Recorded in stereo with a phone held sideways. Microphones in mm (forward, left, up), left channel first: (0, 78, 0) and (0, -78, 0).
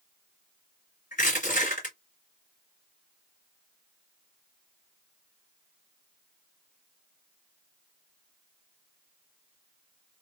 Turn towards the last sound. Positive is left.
turn(degrees=60)  # may be behind; listen again after turning